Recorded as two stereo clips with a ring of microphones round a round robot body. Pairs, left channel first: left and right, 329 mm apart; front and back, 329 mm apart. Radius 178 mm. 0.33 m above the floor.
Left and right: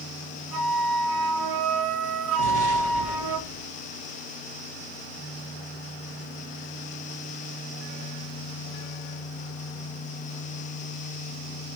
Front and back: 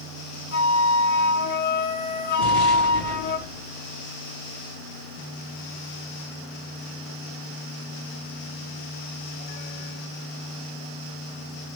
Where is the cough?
I don't hear a cough.